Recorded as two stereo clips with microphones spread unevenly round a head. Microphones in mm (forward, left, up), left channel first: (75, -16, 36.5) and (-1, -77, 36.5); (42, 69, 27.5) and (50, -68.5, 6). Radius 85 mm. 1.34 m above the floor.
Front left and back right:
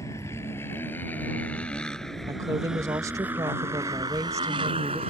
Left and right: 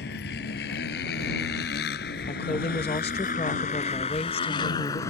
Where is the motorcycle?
110° left; by 5.1 s 165° left.